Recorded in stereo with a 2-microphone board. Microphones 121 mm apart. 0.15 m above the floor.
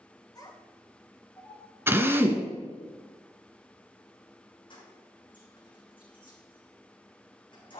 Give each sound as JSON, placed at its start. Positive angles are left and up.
{"t": 0.3, "sound": "a child speaking", "side_deg": 30, "distance_m": 1.9}
{"t": 1.9, "sound": "a drill", "side_deg": -20, "distance_m": 1.6}
{"t": 4.7, "sound": "keys jangling", "side_deg": 40, "distance_m": 5.5}